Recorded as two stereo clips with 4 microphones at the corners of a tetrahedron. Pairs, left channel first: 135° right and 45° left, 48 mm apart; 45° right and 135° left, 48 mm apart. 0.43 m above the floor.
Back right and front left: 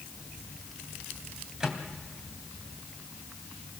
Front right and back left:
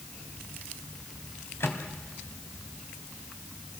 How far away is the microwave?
About 3 m.